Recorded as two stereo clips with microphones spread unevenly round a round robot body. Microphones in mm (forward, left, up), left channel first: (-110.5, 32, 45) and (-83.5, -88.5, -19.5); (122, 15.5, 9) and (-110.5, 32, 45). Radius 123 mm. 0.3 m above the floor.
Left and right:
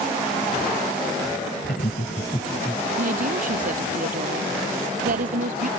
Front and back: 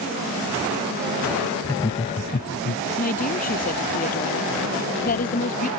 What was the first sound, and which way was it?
Laughter, 65° left.